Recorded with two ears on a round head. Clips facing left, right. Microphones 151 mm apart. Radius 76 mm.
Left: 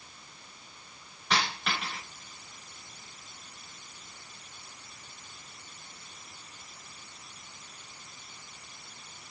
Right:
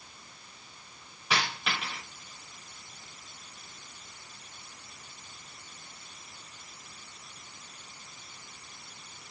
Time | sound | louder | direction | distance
1.3 | a dropped coin | left 1 dB | 5° right (ahead or behind) | 6.5 m